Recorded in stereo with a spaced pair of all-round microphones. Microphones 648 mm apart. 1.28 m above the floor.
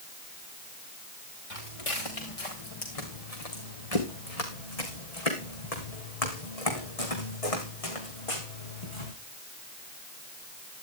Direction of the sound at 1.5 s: 60° left (ahead or behind).